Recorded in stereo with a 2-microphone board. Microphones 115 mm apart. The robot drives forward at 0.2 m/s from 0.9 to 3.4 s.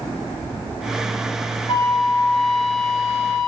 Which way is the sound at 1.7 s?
65° left (ahead or behind).